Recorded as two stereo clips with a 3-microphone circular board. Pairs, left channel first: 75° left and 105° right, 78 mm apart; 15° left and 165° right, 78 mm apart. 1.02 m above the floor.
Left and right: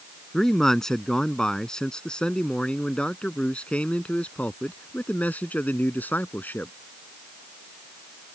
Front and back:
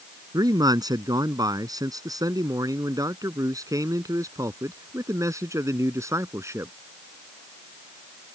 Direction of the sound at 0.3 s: 160° left.